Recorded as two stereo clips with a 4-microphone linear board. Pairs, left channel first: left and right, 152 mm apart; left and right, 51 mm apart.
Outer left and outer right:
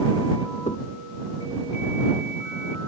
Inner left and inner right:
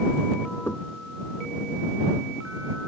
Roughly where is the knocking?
Left.